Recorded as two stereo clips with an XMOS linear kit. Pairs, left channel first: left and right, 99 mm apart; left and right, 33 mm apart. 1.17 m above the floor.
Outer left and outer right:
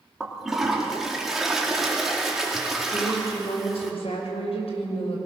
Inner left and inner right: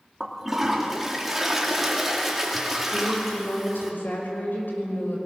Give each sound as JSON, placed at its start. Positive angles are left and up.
{"t": 0.2, "sound": "a toilet flushing", "side_deg": -5, "distance_m": 3.0}
{"t": 2.9, "sound": "a woman speaking", "side_deg": 80, "distance_m": 6.0}